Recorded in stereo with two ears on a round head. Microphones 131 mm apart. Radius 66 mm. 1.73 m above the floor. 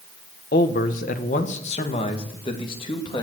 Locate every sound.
0.5 s a man speaking: 65° left (ahead or behind), 1.3 m; by 3.2 s 30° left (ahead or behind), 2.5 m